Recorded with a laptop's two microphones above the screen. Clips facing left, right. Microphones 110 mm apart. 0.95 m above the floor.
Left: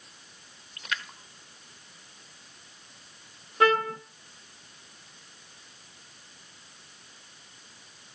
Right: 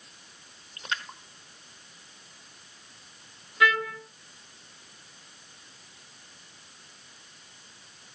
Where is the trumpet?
40° left (ahead or behind), 1.0 m.